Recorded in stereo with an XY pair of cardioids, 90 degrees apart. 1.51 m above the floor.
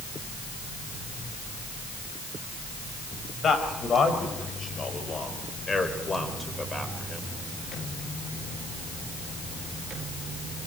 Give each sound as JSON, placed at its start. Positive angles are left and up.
{"t": 3.4, "sound": "a man speaking", "azimuth_deg": 60, "distance_m": 6.5}